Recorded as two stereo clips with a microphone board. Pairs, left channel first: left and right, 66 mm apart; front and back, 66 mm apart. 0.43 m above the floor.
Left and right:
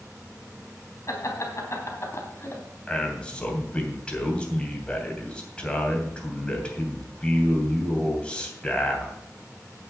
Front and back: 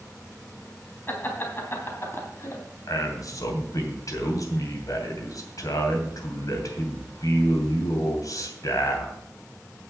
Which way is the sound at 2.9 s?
20° left.